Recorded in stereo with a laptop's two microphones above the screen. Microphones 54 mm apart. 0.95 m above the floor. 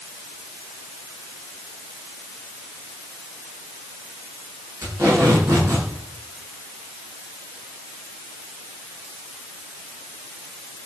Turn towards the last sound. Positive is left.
turn(degrees=-80)